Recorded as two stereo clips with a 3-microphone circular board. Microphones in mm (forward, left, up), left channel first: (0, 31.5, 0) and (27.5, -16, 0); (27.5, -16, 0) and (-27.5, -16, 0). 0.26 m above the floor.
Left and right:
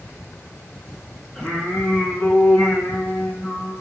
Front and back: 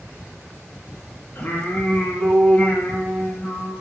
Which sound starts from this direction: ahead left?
Singing, at 1.4 s.